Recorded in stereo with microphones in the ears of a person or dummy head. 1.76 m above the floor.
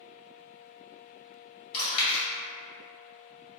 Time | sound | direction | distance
1.7 | chewing | 30° left (ahead or behind) | 1.7 m